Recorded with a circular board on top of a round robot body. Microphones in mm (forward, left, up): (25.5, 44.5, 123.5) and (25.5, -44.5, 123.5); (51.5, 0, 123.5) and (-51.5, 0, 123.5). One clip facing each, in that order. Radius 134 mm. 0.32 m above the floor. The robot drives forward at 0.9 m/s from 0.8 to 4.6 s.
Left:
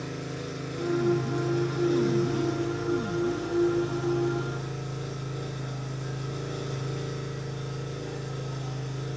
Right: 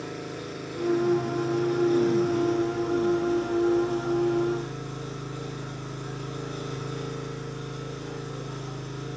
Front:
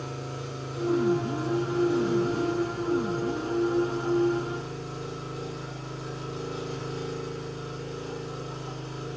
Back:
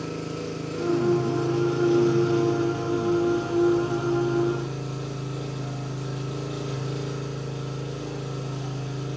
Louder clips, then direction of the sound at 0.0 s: Even, back 5 dB; straight behind.